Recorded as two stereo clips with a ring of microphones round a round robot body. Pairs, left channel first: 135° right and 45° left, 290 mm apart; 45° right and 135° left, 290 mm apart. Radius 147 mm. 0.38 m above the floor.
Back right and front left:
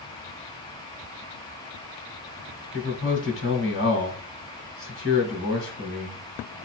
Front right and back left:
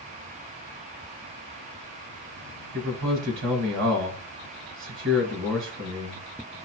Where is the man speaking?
Straight behind, 2 m.